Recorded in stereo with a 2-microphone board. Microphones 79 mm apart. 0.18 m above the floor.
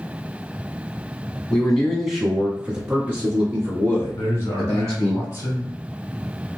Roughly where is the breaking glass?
No breaking glass in this recording.